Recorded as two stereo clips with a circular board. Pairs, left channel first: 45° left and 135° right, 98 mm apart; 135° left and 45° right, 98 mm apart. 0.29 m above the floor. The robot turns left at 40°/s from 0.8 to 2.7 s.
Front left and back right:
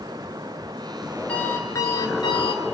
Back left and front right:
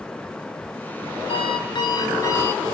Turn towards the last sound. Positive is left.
turn(degrees=65)